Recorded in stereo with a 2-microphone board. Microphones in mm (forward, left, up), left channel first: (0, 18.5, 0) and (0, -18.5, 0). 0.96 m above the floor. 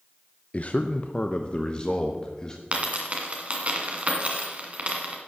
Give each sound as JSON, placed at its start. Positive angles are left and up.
{"t": 0.5, "sound": "a man speaking", "side_deg": 35, "distance_m": 0.5}
{"t": 2.7, "sound": "a dropped coin", "side_deg": -35, "distance_m": 1.8}